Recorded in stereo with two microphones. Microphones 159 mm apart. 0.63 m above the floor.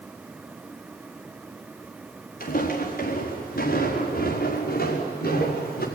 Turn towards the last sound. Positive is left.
turn(degrees=75)  # may be behind; listen again after turning